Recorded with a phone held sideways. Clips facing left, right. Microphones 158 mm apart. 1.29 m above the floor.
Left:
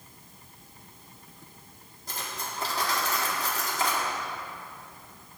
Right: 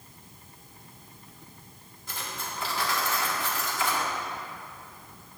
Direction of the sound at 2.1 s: 40° left (ahead or behind).